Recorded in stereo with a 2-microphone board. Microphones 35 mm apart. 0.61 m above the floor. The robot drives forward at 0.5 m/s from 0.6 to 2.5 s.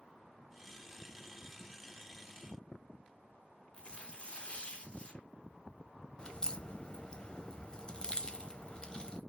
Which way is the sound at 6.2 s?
30° left (ahead or behind).